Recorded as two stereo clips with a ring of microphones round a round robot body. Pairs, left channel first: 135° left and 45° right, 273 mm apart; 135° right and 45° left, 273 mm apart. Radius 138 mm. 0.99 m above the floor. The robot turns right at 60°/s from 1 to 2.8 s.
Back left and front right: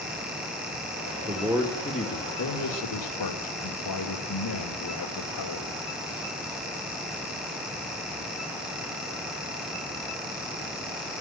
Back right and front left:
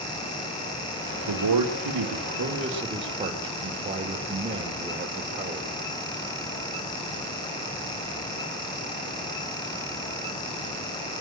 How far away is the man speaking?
About 2.5 m.